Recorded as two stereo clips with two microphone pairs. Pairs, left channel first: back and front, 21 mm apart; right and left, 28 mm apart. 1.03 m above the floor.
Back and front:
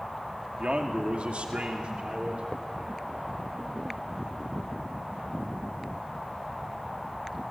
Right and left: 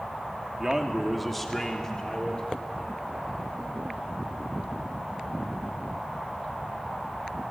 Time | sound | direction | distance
0.6 | a man speaking | 25° left | 2.5 m